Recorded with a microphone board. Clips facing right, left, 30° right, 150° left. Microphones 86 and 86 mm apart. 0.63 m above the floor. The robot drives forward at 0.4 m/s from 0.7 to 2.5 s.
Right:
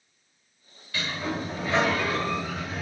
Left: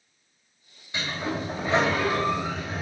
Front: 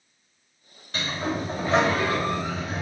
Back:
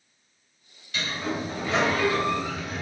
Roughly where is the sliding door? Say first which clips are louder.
Left 1 dB, front 2 dB; ahead.